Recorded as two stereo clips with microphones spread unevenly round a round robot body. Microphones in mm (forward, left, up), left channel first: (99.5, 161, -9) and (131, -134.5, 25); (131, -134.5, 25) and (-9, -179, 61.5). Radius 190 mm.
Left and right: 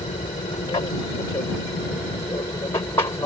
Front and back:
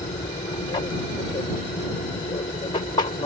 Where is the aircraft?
35° left; by 3.3 s 25° left.